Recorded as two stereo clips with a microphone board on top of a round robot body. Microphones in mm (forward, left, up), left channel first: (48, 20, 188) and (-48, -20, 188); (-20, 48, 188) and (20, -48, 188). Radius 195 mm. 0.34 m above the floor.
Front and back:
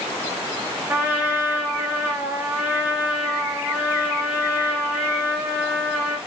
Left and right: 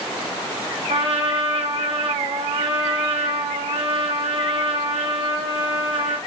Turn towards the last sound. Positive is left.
turn(degrees=-85)